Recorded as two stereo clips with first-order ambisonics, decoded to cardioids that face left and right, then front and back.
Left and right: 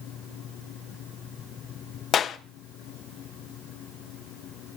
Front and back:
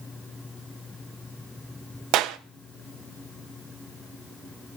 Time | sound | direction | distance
2.1 | a clap | 150° left | 0.8 m